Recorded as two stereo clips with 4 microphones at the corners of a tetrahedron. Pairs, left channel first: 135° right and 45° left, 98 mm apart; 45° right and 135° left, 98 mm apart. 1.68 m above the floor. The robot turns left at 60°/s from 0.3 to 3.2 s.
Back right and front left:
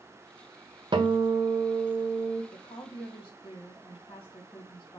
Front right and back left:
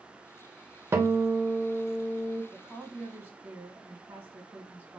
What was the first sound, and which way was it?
A guitar, 75° left.